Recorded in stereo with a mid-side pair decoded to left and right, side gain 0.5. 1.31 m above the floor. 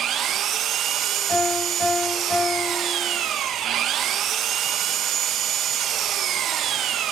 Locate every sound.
0.0 s an engine running: 65° right, 1.2 m
1.3 s a piano: 25° left, 7.5 m